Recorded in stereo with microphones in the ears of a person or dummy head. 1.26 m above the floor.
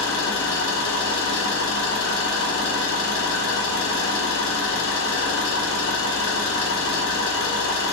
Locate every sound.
0.0 s an engine running: 80° left, 1.0 m